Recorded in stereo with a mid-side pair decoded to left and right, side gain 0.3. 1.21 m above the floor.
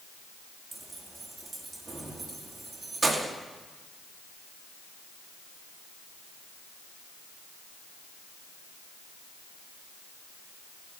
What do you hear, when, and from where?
0.7 s keys jangling: 40° right, 1.7 m